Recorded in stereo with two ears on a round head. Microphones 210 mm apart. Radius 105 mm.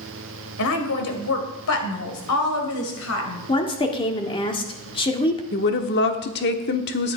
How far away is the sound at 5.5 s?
About 1.2 m.